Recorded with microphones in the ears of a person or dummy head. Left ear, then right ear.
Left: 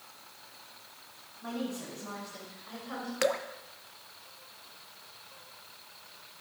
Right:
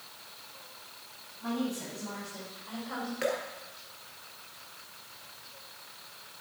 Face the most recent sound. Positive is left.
turn(degrees=40)  # may be behind; listen again after turning